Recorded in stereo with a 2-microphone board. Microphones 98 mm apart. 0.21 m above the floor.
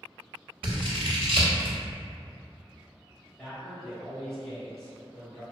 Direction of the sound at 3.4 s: Centre (ahead or behind).